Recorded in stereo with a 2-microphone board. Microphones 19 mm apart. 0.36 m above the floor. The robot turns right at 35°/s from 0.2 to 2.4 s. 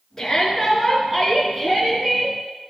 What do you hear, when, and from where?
0.2 s a shout: 155° left, 5.5 m; by 2.4 s 130° right, 5.5 m